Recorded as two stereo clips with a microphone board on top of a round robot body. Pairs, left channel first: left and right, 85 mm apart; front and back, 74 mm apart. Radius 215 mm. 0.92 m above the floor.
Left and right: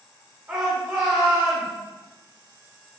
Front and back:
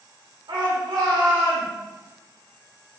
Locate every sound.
0.5 s a shout: 155° right, 1.9 m; by 1.7 s 150° right, 2.5 m